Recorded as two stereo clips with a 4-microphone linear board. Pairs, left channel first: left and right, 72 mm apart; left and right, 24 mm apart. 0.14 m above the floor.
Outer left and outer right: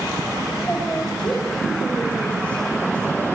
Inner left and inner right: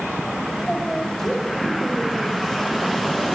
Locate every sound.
0.6 s a woman speaking: 15° left (ahead or behind), 7 m